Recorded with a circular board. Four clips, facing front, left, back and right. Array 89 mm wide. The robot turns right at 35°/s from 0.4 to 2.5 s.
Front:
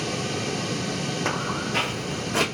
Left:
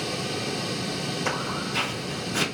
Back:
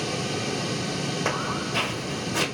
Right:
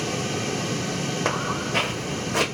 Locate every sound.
1.2 s footsteps: 75° right, 2.5 m; by 2.5 s 35° right, 3 m